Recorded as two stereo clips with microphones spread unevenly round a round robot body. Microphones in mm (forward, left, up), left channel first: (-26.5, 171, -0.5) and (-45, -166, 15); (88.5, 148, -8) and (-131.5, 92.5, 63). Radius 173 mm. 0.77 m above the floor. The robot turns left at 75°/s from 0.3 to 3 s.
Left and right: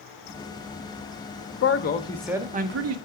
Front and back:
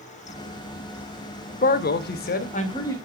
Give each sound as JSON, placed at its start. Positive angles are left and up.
{"t": 1.6, "sound": "a man speaking", "azimuth_deg": 45, "distance_m": 0.6}